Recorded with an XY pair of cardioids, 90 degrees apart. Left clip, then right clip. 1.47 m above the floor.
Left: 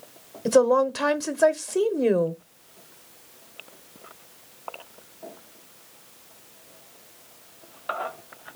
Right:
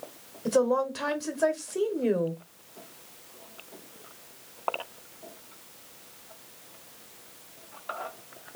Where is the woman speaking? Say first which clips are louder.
Left 6 dB; 50° left, 0.9 m.